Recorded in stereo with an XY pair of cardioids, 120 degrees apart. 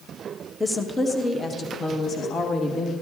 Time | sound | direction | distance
0.6 | a woman speaking | 5° left | 1.3 m